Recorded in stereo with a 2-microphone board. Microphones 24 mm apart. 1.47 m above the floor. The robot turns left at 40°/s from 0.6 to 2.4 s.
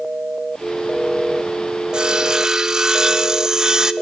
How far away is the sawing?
About 0.6 m.